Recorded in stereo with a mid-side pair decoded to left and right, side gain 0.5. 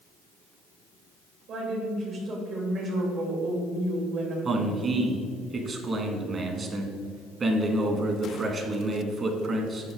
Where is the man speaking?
40° right, 1.8 m.